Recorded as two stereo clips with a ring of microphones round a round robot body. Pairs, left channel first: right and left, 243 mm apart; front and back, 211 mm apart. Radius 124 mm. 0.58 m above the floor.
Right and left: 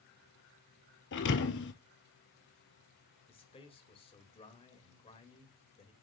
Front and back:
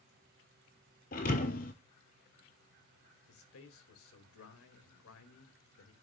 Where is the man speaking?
20° right, 1.9 m.